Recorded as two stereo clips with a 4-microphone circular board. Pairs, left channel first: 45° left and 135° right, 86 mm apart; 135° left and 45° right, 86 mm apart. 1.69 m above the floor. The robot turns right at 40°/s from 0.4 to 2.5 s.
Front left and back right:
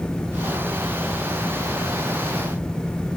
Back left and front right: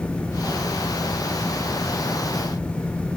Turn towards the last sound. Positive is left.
No sound to turn to.